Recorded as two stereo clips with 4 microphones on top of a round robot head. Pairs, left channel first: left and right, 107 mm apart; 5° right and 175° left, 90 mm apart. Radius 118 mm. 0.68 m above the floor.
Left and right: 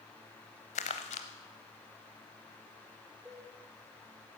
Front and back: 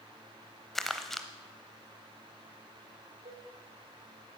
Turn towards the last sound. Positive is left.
turn(degrees=-170)